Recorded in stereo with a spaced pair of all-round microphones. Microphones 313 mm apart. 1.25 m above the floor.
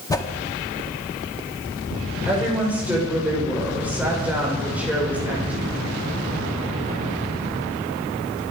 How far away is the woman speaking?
About 5 m.